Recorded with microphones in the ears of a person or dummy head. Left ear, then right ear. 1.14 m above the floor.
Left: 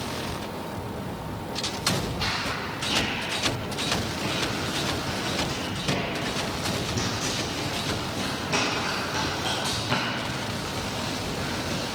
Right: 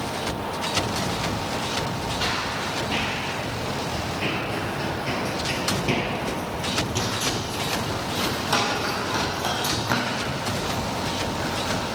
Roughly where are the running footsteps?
Centre.